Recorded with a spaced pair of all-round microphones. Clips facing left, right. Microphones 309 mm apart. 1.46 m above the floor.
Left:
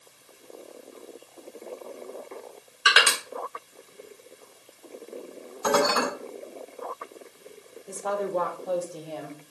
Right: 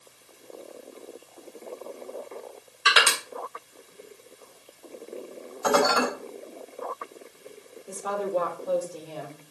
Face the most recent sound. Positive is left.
turn(degrees=-5)  # may be behind; listen again after turning